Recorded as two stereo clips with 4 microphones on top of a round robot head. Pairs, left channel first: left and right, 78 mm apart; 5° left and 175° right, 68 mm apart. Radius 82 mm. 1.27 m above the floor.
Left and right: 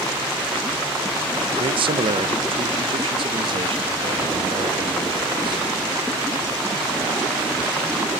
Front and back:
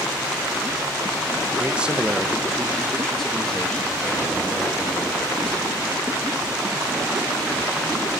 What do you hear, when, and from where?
1.5 s a man speaking: 105° right, 1.1 m; by 5.7 s 70° right, 3 m